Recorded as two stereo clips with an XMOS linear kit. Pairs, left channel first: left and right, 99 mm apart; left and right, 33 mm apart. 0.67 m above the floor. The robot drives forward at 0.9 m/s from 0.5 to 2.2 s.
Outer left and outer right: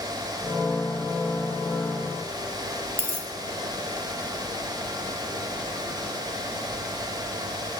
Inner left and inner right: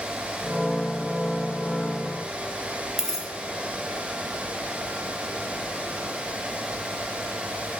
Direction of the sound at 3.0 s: 25° right (ahead or behind).